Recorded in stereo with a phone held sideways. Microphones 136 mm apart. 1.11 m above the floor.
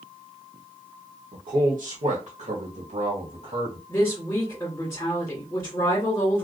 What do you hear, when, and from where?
1.3 s a man speaking: 90° right, 0.9 m; by 3.8 s 35° right (ahead or behind), 1.6 m
3.9 s a woman speaking: 20° left (ahead or behind), 1.9 m